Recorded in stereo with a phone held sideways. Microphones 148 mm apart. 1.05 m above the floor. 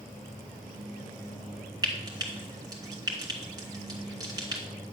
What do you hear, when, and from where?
1.8 s frying: 25° right (ahead or behind), 2.5 m